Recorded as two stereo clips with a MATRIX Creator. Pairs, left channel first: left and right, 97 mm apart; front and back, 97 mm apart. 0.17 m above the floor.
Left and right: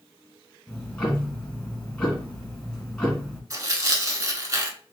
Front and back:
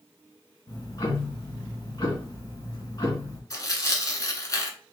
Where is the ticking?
10° left, 1.9 m.